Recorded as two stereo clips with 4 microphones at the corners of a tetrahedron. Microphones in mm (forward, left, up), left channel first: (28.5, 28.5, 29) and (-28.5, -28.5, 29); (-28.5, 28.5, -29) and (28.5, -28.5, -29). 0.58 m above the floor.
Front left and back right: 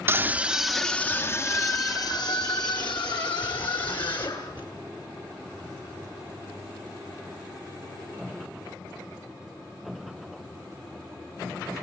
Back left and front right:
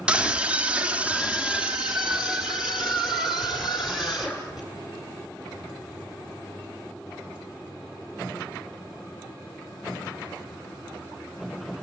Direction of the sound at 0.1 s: 110° right.